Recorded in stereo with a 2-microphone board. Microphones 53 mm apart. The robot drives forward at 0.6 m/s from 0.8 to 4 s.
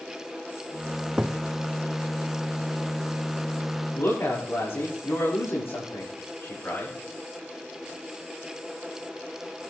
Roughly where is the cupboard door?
Centre.